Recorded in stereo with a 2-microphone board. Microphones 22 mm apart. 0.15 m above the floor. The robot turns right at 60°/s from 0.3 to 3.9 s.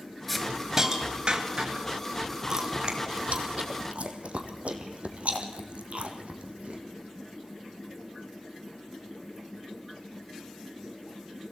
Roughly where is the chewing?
Right.